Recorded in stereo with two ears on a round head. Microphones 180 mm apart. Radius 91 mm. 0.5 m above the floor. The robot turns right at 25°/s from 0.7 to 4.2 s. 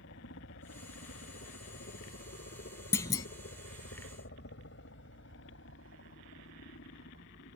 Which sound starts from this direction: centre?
A clunk, at 2.9 s.